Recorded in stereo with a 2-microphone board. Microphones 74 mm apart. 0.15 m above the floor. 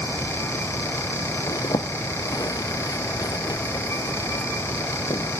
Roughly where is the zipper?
Left.